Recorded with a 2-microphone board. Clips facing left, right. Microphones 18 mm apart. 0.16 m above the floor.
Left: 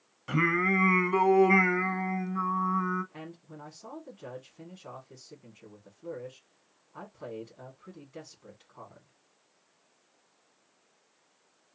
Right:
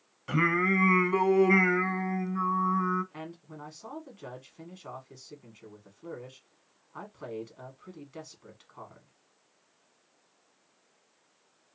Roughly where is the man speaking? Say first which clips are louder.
Right 2 dB; right.